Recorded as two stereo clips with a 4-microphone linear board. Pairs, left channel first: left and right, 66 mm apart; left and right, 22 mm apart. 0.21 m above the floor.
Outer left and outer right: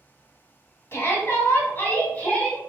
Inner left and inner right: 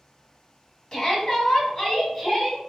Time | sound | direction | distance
0.9 | a shout | 40° left (ahead or behind) | 1.3 m